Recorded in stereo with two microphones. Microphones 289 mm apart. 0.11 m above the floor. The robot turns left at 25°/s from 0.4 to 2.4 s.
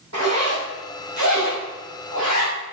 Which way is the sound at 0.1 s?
55° right (ahead or behind).